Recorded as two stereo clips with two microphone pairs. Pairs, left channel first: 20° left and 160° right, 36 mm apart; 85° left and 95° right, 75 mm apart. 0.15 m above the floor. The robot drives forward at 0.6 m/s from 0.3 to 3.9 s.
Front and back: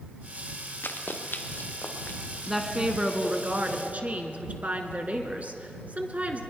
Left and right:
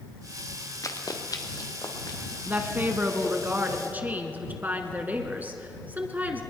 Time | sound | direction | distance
0.8 | running footsteps | 40° left | 1.5 m
2.5 | a woman speaking | 90° right | 1.1 m